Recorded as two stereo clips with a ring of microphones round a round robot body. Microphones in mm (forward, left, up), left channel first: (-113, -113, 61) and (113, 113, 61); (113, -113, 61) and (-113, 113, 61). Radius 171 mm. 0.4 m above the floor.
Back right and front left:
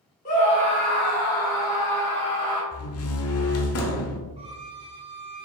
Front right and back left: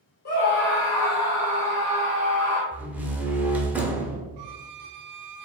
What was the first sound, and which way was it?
A scream, 85° right.